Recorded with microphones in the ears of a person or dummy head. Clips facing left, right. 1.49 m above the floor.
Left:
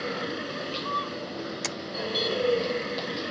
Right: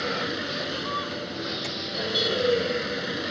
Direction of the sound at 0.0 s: 10° right (ahead or behind).